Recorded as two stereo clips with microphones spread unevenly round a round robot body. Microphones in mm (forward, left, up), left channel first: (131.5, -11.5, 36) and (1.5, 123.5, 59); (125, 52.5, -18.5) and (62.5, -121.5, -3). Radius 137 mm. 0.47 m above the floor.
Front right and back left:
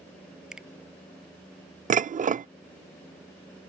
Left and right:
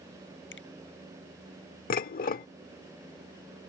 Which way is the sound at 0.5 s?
50° left.